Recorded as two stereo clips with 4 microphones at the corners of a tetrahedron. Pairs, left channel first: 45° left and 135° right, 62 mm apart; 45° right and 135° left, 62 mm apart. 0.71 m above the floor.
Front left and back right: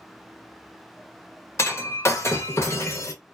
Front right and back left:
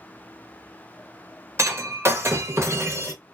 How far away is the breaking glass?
About 1.1 m.